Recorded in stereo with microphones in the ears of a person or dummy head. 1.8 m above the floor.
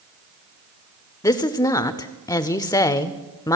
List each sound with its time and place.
1.2 s a woman speaking: 15° left (ahead or behind), 0.5 m